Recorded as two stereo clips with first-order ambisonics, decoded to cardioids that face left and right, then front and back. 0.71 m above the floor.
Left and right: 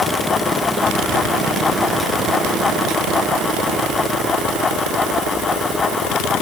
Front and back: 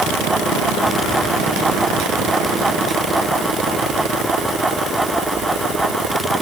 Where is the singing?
No singing in this recording.